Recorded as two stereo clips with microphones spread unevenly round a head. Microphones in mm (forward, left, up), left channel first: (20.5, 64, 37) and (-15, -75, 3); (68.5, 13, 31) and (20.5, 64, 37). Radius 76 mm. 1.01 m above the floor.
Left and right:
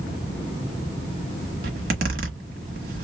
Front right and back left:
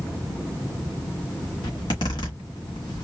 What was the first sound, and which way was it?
A zipper, 80° right.